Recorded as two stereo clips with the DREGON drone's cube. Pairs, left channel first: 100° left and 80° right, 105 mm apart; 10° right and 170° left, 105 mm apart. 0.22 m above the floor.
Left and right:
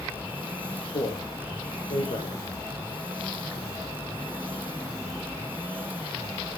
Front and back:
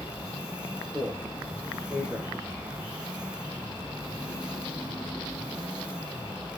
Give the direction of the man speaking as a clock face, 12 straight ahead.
9 o'clock.